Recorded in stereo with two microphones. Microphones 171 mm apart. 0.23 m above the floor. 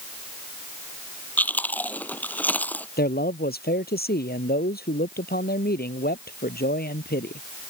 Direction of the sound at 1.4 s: 10° left (ahead or behind).